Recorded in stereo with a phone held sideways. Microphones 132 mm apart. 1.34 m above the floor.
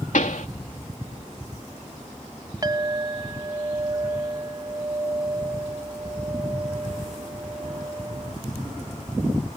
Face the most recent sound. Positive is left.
turn(degrees=-30)  # may be behind; listen again after turning